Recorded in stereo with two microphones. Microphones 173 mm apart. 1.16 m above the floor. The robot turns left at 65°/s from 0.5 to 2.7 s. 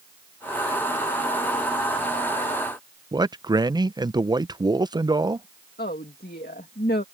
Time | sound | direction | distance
3.1 | a man speaking | 25° right (ahead or behind) | ?
5.8 | a woman speaking | 65° left (ahead or behind) | ?